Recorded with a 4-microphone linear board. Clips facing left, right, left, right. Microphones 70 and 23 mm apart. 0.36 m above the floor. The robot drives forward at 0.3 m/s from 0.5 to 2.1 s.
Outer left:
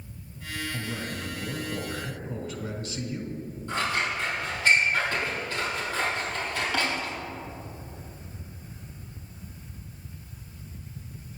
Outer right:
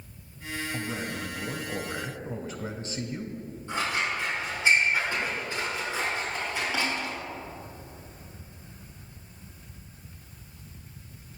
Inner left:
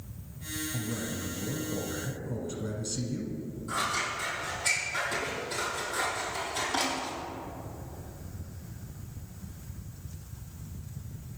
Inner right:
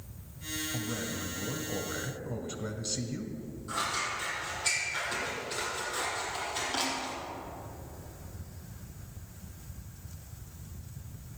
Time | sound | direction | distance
0.7 | a man speaking | 25° right (ahead or behind) | 1.7 m
3.7 | scissors | 20° right (ahead or behind) | 4.5 m